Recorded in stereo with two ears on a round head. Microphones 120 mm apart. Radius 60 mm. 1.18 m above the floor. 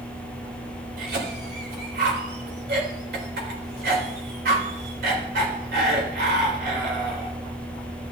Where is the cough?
90° right, 4 m.